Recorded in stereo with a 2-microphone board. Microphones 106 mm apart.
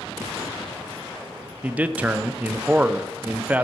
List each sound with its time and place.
1.6 s a man speaking: 15° right (ahead or behind), 0.5 m